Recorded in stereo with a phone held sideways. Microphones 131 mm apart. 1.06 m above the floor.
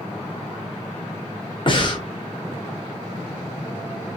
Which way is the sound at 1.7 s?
40° left (ahead or behind).